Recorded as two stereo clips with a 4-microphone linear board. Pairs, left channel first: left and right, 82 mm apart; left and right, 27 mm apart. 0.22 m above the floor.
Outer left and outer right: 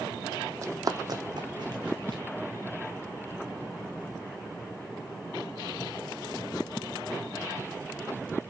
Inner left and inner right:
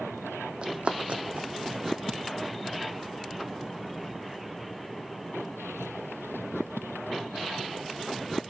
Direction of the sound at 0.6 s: 40° right (ahead or behind).